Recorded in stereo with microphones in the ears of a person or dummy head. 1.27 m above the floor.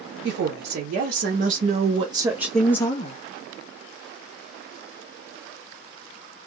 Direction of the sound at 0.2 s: 60° right (ahead or behind).